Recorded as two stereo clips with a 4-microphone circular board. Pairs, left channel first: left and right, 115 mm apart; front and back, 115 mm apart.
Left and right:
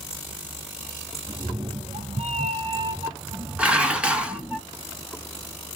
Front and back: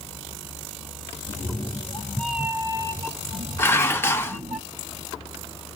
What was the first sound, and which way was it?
A cat meowing, 35° right.